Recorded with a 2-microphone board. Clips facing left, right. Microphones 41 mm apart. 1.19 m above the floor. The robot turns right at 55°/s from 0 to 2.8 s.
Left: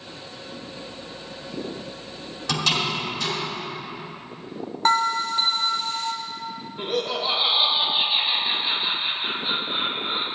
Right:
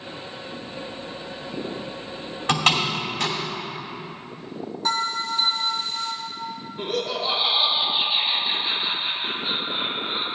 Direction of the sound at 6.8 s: 10° left (ahead or behind).